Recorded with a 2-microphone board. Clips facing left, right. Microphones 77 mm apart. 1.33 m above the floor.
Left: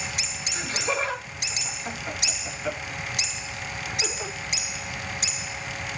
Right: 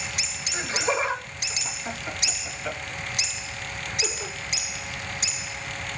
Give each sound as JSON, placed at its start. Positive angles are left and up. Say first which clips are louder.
{"t": 0.5, "sound": "laughter", "louder": "right 3 dB", "side_deg": -30, "distance_m": 2.5}